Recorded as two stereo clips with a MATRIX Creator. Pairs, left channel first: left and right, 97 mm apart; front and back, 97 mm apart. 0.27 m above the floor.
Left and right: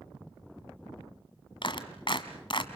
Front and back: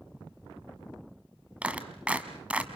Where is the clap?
105° left, 1.7 m.